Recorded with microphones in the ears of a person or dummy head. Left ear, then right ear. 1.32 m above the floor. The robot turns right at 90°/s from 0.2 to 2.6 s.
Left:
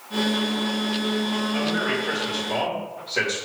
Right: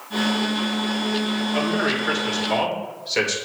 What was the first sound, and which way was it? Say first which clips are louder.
A man speaking: right 4 dB; 175° right.